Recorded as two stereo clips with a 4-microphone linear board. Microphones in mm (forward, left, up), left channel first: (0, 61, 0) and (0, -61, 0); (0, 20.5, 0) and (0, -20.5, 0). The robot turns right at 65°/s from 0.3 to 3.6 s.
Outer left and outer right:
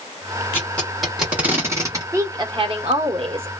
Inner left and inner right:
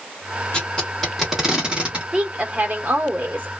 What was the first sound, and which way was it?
Tape being pulled, 20° left (ahead or behind).